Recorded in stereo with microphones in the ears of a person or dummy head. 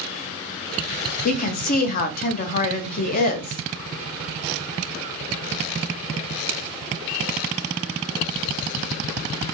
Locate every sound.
1.2 s a woman speaking: 45° left (ahead or behind), 0.5 m